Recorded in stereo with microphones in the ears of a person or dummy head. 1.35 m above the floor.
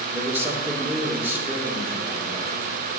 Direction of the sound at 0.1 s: 5° right (ahead or behind).